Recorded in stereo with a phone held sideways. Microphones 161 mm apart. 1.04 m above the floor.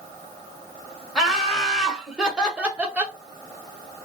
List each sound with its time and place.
1.1 s laughter: centre (ahead or behind), 1.5 m; by 3.2 s 10° right (ahead or behind), 0.7 m